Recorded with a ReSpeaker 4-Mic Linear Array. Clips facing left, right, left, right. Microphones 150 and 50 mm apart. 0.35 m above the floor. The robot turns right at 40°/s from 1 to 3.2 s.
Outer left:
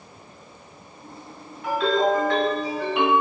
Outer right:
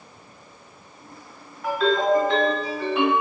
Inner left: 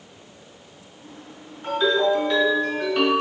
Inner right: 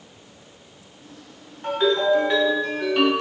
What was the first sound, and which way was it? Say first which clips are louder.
A ringtone: even, even; 50° right.